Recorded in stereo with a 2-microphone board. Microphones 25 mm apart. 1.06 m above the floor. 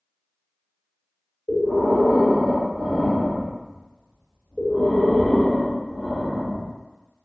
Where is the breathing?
60° left (ahead or behind), 1.6 m.